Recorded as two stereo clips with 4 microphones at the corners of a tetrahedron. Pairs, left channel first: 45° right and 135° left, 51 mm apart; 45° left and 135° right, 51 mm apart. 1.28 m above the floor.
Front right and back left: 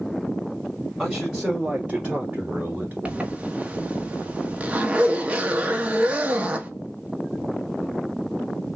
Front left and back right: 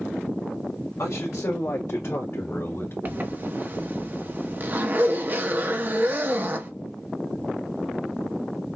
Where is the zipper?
165° right, 0.9 m.